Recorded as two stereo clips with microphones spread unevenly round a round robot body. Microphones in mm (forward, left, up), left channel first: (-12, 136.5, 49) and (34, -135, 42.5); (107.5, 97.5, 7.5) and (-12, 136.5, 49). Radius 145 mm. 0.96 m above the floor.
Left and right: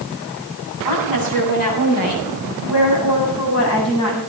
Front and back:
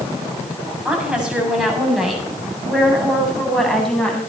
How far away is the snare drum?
No snare drum in this recording.